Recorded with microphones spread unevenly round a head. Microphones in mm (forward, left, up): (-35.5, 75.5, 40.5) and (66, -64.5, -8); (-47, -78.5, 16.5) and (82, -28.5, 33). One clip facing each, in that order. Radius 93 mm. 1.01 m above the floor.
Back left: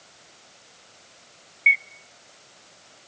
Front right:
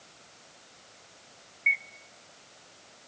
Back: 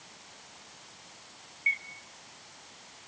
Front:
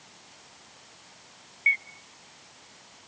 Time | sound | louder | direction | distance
1.7 | a bird | back left 7 dB, front 5 dB | 70° left | 0.8 m